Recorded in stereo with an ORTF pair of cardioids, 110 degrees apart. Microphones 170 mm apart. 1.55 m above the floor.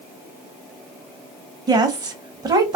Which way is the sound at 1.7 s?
25° right.